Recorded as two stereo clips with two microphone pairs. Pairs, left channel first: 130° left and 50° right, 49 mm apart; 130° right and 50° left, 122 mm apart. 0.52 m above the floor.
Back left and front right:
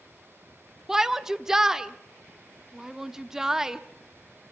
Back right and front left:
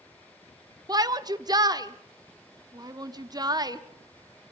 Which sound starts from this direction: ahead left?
A shout, at 0.9 s.